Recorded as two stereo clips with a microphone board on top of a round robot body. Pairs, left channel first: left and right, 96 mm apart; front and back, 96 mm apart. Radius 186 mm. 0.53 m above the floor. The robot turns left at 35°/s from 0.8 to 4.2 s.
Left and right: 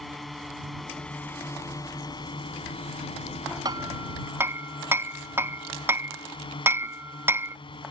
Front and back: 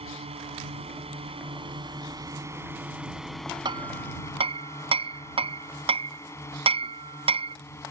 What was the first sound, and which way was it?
A drone, straight behind.